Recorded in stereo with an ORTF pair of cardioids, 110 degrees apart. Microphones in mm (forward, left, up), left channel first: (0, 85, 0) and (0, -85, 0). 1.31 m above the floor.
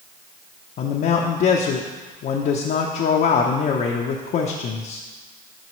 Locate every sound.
0.8 s a man speaking: 55° left, 0.7 m